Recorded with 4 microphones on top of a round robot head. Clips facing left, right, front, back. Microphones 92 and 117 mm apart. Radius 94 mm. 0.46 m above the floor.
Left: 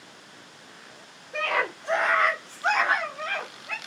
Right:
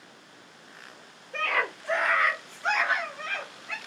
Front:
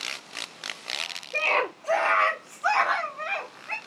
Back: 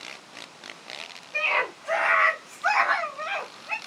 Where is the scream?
20° left, 1.8 m; by 3.8 s 110° left, 1.8 m.